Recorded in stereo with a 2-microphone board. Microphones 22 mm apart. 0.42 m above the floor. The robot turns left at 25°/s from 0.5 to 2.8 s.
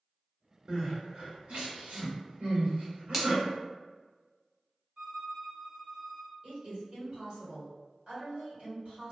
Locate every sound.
0.7 s crying: 50° right (ahead or behind), 1.5 m; by 3.4 s 75° right (ahead or behind), 1.5 m
3.1 s a finger snap: 15° right (ahead or behind), 0.6 m
5.0 s a violin: 50° right (ahead or behind), 0.8 m
6.4 s a woman speaking: 35° right (ahead or behind), 1.9 m